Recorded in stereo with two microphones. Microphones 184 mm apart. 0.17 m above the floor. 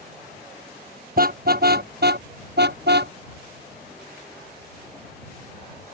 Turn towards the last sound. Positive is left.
turn(degrees=-75)  # may be behind; listen again after turning